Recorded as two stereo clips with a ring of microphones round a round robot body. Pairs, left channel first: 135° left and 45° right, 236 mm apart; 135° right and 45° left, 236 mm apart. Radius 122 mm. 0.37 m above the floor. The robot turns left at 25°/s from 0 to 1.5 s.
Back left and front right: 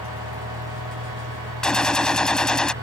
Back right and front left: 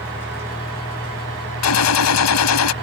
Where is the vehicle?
35° right; by 2.8 s 75° right.